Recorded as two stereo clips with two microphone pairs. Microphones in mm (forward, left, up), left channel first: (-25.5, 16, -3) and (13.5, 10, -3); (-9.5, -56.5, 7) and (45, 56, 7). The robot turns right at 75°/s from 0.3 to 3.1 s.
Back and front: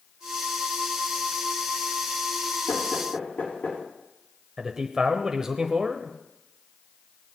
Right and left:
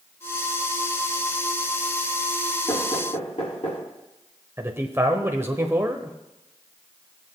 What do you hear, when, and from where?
2.7 s knocking: straight behind, 5.5 m; by 3.8 s 150° right, 5.5 m
4.6 s a man speaking: 40° left, 0.9 m